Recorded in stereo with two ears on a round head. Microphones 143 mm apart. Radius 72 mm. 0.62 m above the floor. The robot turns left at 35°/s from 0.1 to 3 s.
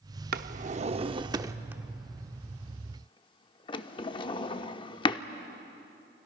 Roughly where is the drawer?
Right.